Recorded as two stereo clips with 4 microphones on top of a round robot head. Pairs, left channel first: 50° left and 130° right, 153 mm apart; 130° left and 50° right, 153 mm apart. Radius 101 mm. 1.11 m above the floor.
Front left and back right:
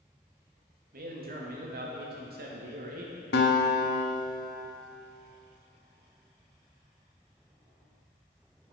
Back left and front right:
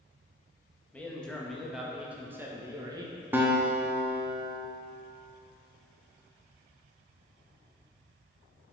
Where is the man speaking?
150° right, 1.9 m; by 3.2 s 110° right, 1.6 m.